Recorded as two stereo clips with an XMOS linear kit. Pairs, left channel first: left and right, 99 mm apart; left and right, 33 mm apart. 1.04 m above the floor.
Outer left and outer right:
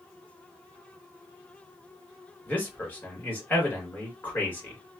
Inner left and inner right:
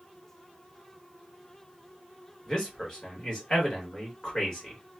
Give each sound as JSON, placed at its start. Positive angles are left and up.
{"t": 2.5, "sound": "a man speaking", "side_deg": 20, "distance_m": 1.7}